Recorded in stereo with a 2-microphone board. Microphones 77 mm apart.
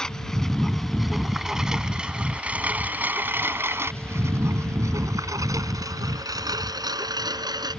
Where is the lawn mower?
10° left (ahead or behind); by 7.8 s 65° right (ahead or behind).